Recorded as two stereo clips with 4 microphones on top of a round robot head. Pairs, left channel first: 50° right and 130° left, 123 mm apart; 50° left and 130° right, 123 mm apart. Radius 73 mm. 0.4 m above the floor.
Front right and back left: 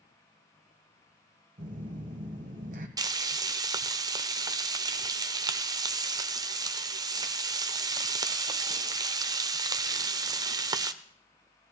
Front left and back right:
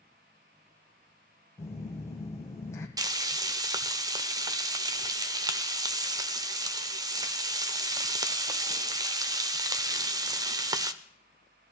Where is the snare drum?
No snare drum in this recording.